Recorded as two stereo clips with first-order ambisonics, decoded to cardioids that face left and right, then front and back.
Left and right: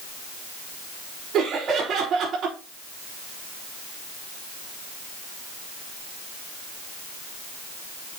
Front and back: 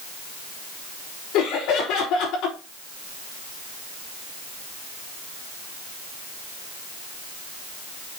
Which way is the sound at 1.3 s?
35° right.